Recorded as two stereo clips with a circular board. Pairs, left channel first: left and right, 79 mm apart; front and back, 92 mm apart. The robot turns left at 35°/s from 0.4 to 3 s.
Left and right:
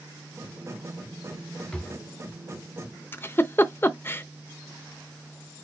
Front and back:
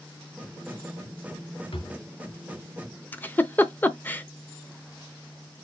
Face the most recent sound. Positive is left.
turn(degrees=55)